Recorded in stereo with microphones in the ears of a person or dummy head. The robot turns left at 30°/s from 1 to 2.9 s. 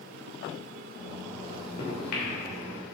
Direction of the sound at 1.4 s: 35° left (ahead or behind).